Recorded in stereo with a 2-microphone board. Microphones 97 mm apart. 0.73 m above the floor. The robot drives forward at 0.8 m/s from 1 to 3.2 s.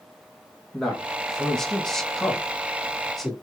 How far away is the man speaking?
About 0.8 m.